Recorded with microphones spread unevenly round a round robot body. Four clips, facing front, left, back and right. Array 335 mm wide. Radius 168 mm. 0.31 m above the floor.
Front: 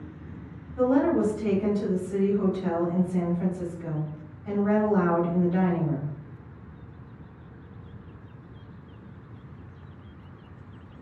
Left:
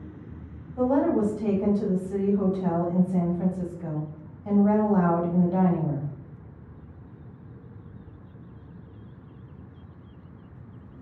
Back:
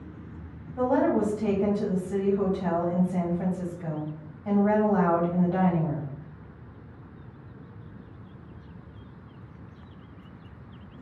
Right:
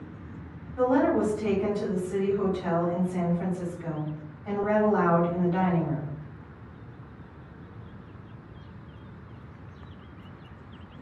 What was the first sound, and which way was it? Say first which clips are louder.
A woman speaking: even, front 1 dB; 140° left.